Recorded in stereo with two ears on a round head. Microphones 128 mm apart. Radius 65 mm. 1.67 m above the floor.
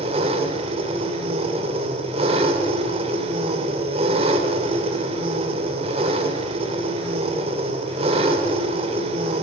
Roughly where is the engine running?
Right.